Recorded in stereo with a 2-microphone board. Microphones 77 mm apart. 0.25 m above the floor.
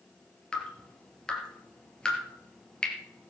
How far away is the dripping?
About 3 m.